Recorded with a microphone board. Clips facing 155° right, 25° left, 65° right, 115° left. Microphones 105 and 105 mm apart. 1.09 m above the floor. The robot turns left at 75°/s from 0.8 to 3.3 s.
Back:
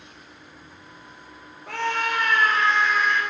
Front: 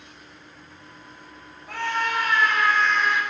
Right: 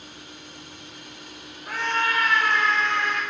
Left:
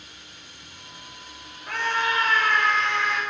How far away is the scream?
About 5.5 m.